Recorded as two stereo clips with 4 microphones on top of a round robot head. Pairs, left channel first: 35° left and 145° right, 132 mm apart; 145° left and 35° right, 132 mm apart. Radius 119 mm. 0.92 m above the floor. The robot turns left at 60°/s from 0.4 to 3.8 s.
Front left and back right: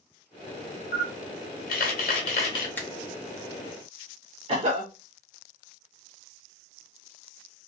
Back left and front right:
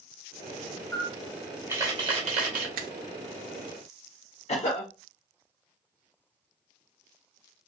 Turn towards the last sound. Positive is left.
turn(degrees=180)